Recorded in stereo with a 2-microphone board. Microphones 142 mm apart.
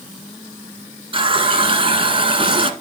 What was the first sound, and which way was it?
A running tap, 40° right (ahead or behind).